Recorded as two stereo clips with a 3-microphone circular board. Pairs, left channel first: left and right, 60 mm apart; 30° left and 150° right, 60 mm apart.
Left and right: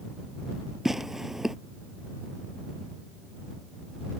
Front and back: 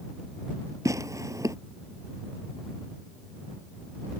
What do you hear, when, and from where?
0.8 s tearing paper: 175° right